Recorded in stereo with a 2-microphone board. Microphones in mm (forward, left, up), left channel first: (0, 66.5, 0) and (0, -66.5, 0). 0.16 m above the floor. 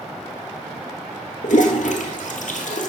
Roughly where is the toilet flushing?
Left.